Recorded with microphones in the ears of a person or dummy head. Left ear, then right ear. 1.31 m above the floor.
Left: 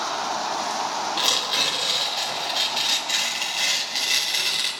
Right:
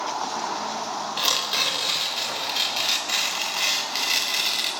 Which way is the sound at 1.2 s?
10° right (ahead or behind).